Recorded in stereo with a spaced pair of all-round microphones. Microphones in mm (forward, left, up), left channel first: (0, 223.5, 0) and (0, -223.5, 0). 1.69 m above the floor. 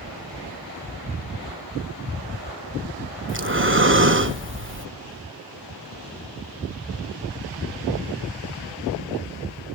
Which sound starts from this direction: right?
Breathing, at 3.3 s.